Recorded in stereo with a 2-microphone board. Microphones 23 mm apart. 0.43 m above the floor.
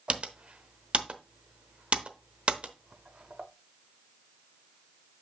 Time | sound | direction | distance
0.1 | typing on a keyboard | 55° right (ahead or behind) | 0.8 m